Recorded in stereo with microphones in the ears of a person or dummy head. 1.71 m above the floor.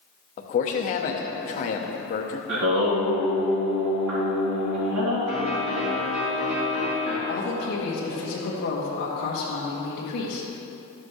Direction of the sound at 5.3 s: 75° right (ahead or behind).